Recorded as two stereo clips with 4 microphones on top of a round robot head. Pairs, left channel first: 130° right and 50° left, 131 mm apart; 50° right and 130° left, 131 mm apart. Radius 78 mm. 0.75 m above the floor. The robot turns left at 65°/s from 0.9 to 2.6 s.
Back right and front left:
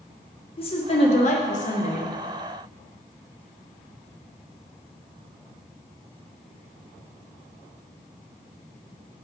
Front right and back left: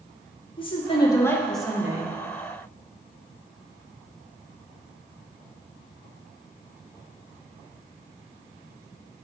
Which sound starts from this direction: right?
A woman speaking, at 0.6 s.